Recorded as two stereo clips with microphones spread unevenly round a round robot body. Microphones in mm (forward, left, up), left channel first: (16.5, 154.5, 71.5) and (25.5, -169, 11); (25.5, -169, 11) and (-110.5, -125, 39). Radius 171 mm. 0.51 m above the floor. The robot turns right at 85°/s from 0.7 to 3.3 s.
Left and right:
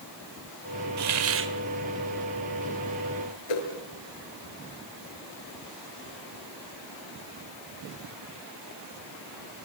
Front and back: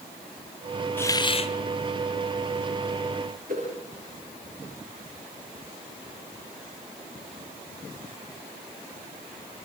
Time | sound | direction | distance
1.0 | a hiss | 85° right | 2.5 m
3.5 | a whoosh | 95° left | 6.5 m